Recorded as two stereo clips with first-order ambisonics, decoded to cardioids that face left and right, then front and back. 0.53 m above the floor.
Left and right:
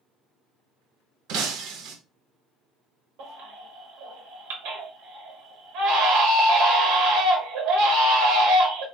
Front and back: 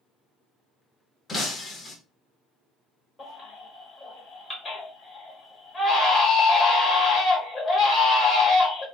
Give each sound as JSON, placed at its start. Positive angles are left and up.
{"t": 1.3, "sound": "breaking glass", "azimuth_deg": -70, "distance_m": 0.6}
{"t": 3.2, "sound": "a baby crying", "azimuth_deg": -75, "distance_m": 1.1}